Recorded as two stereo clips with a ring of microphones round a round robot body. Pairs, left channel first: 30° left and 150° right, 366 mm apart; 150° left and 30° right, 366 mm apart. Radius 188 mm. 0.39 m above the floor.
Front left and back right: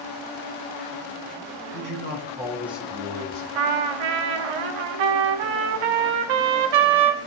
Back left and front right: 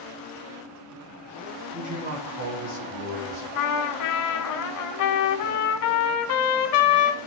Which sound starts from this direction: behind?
A trumpet, at 3.5 s.